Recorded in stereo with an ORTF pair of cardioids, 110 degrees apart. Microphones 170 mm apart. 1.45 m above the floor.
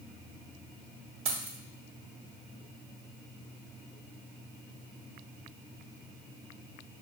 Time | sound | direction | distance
1.2 | keys jangling | 35° right | 1.5 m